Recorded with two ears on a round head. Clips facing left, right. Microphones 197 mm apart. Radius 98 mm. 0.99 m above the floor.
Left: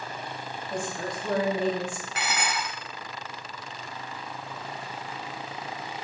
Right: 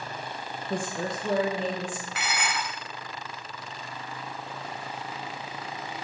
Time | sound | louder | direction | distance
0.7 | a woman speaking | right 2 dB | 50° right (ahead or behind) | 1.1 m
2.1 | dishes clattering | left 2 dB | 35° left (ahead or behind) | 0.8 m